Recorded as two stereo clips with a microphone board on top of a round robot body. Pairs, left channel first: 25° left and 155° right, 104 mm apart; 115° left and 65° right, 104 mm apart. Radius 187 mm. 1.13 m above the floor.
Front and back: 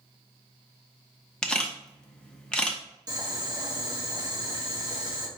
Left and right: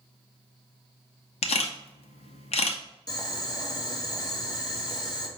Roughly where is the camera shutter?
Left.